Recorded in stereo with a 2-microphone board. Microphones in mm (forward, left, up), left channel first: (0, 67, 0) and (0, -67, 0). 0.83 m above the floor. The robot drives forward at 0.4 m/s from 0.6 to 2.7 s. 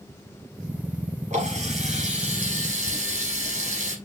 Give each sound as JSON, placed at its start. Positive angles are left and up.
{"t": 1.3, "sound": "a running tap", "side_deg": -65, "distance_m": 5.0}